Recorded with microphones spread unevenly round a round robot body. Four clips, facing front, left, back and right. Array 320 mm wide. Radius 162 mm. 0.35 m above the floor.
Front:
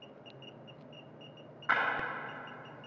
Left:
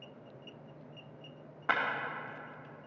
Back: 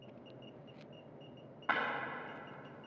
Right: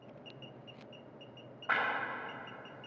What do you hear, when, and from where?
1.7 s breaking glass: 115° left, 3 m